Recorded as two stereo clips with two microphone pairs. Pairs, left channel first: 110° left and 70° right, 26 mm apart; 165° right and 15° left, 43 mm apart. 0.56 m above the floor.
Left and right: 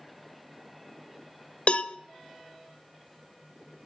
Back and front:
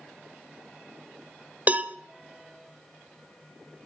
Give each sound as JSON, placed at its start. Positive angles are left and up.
{"t": 1.7, "sound": "a cowbell", "azimuth_deg": 70, "distance_m": 0.5}